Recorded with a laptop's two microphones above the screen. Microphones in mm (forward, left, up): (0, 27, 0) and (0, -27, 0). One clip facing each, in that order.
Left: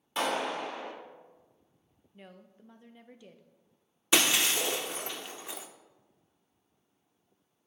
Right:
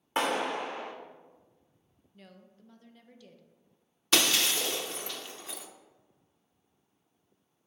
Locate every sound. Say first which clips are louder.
0.2 s a clap: right 2 dB; 35° right (ahead or behind), 2.5 m
2.1 s a woman speaking: left 2 dB; 15° left (ahead or behind), 0.6 m
4.1 s breaking glass: left 1 dB; 20° left (ahead or behind), 0.7 m